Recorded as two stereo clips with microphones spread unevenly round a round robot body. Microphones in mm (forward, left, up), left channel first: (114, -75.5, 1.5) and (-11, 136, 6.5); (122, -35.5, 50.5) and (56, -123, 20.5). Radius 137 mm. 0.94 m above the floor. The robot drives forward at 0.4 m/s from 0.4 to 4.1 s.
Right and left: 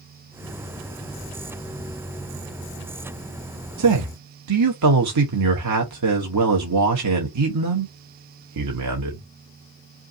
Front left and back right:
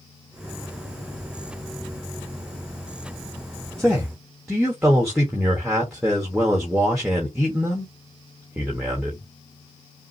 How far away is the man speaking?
About 0.8 m.